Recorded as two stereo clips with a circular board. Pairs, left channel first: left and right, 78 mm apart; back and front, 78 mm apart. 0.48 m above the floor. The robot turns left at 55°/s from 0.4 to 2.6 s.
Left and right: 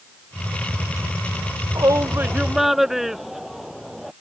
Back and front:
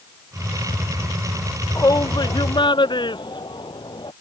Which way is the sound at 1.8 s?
130° right.